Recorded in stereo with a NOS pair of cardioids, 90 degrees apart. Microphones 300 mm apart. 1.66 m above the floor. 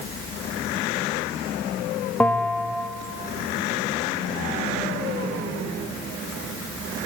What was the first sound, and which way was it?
A bell, 5° left.